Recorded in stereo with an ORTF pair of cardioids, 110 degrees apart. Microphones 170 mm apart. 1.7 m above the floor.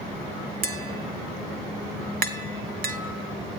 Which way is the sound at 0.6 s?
60° right.